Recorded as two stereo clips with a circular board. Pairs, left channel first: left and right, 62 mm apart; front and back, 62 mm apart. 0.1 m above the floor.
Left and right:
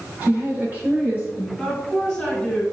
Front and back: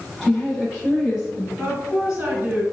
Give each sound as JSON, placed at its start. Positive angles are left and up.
{"t": 0.2, "sound": "a woman speaking", "azimuth_deg": -100, "distance_m": 1.8}
{"t": 1.6, "sound": "a woman speaking", "azimuth_deg": 140, "distance_m": 1.6}